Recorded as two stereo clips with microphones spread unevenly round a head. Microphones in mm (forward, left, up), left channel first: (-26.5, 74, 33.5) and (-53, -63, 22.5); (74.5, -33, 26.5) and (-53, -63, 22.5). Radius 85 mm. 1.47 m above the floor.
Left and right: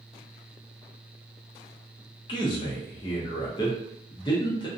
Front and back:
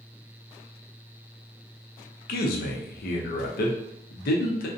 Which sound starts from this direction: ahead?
A man speaking, at 2.3 s.